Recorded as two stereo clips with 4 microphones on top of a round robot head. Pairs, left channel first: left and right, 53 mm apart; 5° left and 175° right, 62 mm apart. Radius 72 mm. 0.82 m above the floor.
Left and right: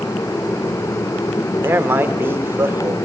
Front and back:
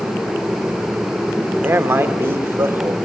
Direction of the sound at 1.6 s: 130° right.